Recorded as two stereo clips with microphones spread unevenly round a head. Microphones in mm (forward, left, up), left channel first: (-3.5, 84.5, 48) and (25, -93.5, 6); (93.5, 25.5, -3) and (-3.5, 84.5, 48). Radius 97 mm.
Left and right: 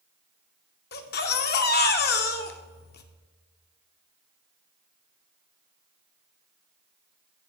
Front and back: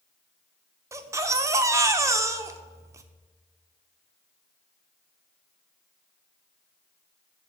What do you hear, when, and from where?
0.9 s a baby crying: 110° left, 0.8 m